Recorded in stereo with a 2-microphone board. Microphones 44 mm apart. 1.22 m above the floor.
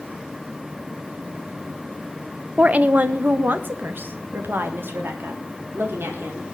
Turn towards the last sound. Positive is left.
turn(degrees=-60)  # may be behind; listen again after turning